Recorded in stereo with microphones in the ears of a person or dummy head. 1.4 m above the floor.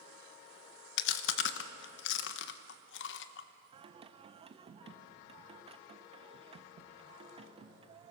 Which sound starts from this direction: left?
Chewing, at 1.0 s.